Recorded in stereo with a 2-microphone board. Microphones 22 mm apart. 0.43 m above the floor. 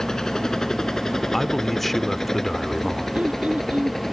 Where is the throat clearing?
70° right (ahead or behind).